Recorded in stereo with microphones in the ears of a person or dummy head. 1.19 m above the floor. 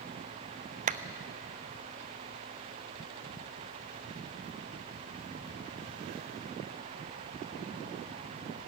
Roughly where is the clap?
Right.